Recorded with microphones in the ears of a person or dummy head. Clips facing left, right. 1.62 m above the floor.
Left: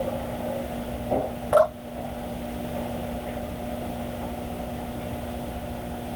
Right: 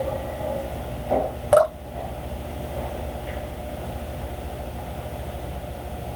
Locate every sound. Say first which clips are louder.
1.5 s dripping: right 3 dB; 55° right (ahead or behind), 2 m